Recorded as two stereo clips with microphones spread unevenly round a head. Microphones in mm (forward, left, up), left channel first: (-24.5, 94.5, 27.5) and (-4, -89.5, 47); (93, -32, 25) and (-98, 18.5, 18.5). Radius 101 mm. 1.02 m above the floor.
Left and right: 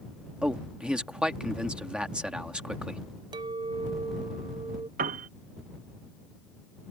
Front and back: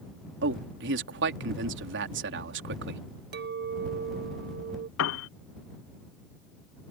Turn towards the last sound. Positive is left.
turn(degrees=-35)